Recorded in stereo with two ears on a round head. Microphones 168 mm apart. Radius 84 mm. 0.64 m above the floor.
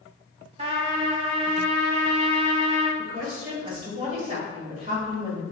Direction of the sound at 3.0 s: 40° right (ahead or behind).